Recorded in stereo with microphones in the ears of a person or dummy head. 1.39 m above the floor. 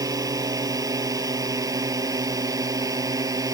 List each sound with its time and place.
0.0 s a drone: 20° right (ahead or behind)